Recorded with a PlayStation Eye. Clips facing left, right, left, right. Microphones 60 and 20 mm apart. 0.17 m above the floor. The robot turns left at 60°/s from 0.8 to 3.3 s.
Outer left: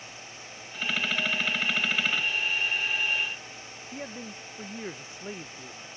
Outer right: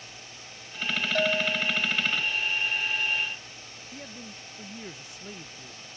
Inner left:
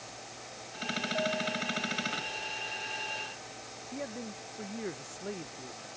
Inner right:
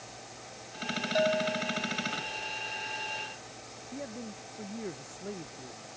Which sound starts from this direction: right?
A bell, at 1.1 s.